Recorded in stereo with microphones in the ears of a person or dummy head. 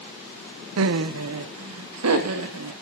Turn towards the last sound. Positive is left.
turn(degrees=-85)